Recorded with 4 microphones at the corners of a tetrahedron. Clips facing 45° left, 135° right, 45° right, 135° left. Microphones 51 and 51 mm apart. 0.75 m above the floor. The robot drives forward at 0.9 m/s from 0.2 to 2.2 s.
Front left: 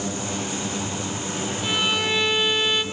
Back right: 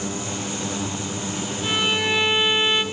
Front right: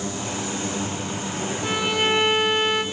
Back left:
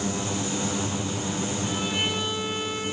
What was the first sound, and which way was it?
A violin, 50° right.